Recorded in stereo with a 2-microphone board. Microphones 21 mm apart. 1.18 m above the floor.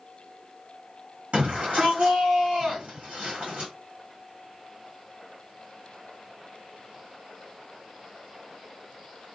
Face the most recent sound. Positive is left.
turn(degrees=-80)